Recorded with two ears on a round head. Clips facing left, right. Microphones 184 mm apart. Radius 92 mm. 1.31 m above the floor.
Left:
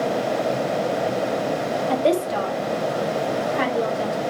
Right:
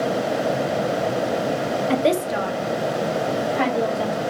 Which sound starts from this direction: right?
A woman speaking, at 1.9 s.